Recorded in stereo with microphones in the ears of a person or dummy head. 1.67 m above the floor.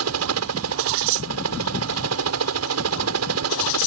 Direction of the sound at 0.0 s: 80° right.